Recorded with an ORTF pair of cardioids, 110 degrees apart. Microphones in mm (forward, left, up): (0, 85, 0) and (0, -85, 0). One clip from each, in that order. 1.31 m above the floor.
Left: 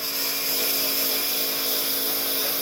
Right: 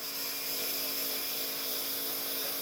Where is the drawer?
No drawer in this recording.